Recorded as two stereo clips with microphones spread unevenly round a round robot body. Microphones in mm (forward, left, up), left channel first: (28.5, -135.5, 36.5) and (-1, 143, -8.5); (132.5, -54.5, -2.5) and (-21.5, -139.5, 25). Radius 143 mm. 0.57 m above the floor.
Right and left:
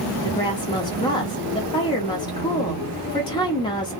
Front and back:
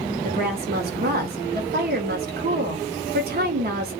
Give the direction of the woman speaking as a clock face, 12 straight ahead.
5 o'clock.